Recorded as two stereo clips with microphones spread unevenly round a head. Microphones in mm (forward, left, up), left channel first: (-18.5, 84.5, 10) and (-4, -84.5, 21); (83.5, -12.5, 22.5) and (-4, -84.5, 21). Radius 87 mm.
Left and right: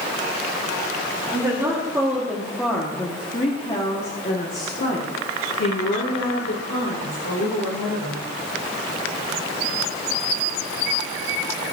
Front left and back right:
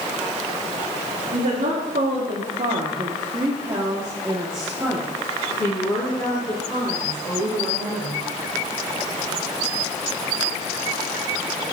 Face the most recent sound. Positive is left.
turn(degrees=100)